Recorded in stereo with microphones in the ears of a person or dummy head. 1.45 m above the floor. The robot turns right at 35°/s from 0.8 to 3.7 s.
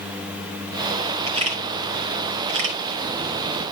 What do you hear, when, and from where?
1.3 s a camera shutter: 30° right (ahead or behind), 2.5 m; by 3.7 s 50° right (ahead or behind), 2.5 m